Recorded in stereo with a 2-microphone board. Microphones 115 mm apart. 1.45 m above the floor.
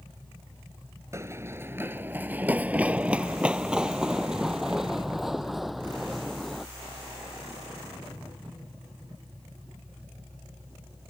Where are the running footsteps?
25° right (ahead or behind); by 6.7 s centre (ahead or behind).